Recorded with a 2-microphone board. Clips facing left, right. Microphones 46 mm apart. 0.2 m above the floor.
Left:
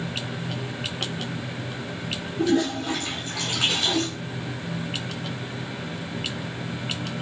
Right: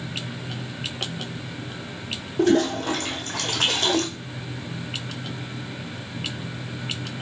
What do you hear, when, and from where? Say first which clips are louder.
2.4 s a toilet flushing: right 3 dB; 60° right (ahead or behind), 1.4 m